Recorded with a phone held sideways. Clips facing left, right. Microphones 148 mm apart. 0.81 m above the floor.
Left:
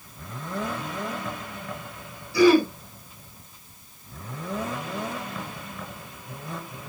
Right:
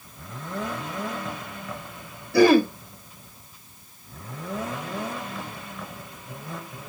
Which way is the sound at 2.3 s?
55° right (ahead or behind).